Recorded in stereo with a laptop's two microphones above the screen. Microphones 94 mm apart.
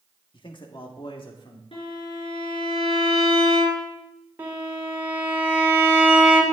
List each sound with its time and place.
0.3 s a man speaking: 60° left (ahead or behind), 1.4 m; by 1.6 s 65° left (ahead or behind), 2 m
1.7 s a violin: 75° left (ahead or behind), 3.5 m
4.4 s a violin: 25° right (ahead or behind), 2.5 m